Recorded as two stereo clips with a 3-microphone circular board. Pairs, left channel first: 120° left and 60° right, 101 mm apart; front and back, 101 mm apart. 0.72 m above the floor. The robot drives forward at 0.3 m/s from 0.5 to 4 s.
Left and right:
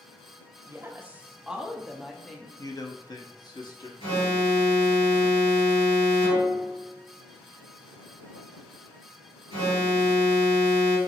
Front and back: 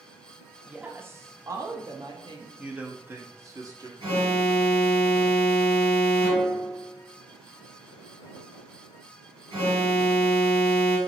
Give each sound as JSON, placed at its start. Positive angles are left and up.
{"t": 0.7, "sound": "a woman speaking", "azimuth_deg": -110, "distance_m": 0.5}
{"t": 2.6, "sound": "a man speaking", "azimuth_deg": 110, "distance_m": 0.6}
{"t": 4.0, "sound": "an alarm", "azimuth_deg": 145, "distance_m": 1.8}